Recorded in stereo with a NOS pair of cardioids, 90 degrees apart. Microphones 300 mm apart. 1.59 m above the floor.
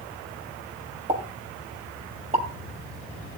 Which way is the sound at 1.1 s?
25° right.